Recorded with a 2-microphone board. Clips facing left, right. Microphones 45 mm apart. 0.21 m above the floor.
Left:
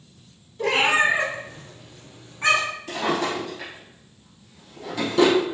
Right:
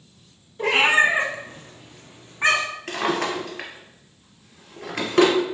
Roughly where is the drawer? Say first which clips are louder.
Right 1 dB; right.